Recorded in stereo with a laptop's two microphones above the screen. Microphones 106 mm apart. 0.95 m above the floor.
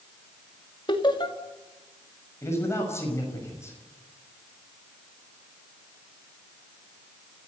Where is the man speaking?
25° left (ahead or behind), 5.5 m.